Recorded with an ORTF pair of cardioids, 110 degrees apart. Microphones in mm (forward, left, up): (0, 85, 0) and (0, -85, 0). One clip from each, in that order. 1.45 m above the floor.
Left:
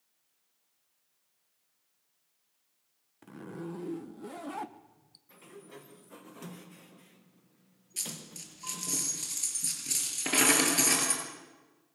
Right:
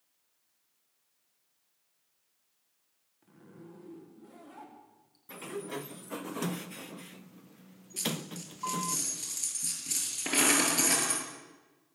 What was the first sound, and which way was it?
A zipper, 70° left.